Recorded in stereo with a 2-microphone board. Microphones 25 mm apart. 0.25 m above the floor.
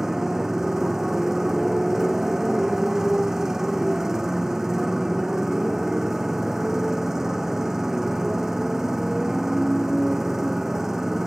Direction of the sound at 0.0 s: 15° right (ahead or behind).